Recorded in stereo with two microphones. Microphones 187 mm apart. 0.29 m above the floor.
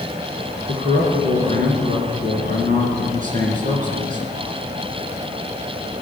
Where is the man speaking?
45° right (ahead or behind), 3 m.